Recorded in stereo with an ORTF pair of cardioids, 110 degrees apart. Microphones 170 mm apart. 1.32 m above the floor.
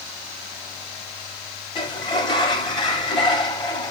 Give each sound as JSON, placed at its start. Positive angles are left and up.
{"t": 1.8, "sound": "a sliding door", "azimuth_deg": 30, "distance_m": 0.9}